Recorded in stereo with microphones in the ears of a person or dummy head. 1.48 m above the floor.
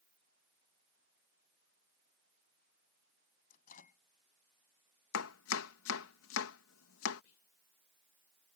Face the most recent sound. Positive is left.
turn(degrees=85)